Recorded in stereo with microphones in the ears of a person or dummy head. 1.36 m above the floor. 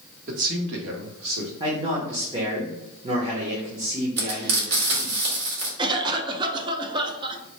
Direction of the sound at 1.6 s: 20° right (ahead or behind).